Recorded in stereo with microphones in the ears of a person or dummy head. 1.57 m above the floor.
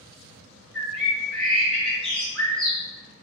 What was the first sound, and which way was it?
A bird, centre (ahead or behind).